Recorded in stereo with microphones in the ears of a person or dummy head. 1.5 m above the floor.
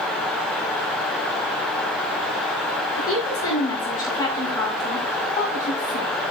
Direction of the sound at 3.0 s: 20° left (ahead or behind).